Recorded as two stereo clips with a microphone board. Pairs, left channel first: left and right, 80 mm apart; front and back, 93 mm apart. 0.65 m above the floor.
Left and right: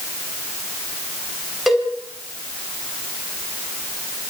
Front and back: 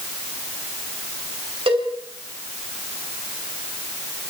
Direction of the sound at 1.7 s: 175° right.